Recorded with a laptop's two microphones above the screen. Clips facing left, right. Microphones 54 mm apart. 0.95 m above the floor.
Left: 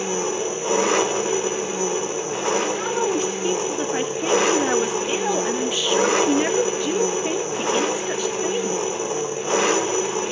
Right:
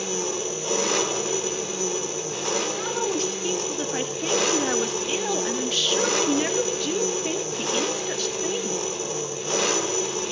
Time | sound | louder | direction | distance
0.0 | an engine running | left 4 dB | 25° left (ahead or behind) | 1.7 m
2.8 | a woman speaking | left 4 dB | 15° left (ahead or behind) | 1.6 m